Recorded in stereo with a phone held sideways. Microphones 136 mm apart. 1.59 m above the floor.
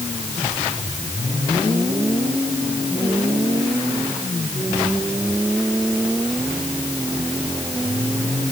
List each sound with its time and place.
Only background noise.